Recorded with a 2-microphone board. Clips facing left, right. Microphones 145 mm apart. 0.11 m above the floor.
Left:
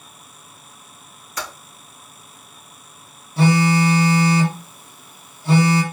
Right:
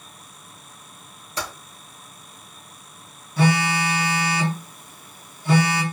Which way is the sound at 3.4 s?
30° left (ahead or behind).